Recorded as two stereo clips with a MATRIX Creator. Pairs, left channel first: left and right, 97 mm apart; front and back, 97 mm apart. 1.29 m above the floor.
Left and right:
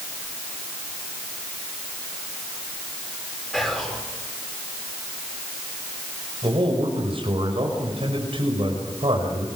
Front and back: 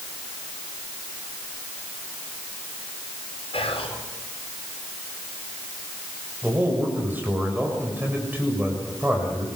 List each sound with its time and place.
3.5 s whispering: 5° left, 4.5 m
6.4 s a man speaking: 110° right, 6 m